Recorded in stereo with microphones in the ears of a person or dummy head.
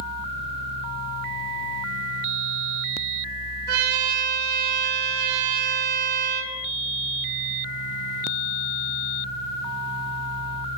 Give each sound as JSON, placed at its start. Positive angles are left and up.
{"t": 3.7, "sound": "a trumpet", "side_deg": -55, "distance_m": 5.0}